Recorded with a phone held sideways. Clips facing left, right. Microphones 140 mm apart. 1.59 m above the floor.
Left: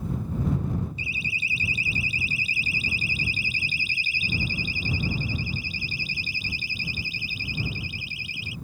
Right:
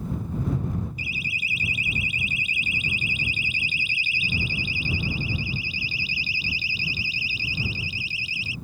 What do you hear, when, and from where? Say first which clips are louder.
1.0 s a siren: even; 30° left (ahead or behind); by 8.6 s 55° left (ahead or behind)